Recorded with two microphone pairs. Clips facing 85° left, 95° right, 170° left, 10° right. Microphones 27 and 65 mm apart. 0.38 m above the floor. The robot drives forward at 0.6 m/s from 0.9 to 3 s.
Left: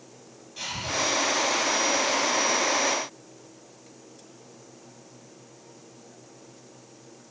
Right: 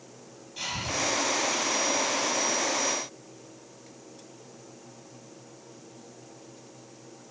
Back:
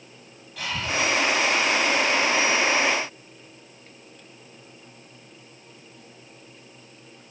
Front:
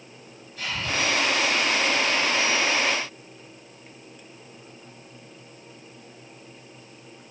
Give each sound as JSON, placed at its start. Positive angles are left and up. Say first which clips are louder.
{"t": 0.6, "sound": "breathing", "louder": "even, back 1 dB", "azimuth_deg": 170, "distance_m": 4.0}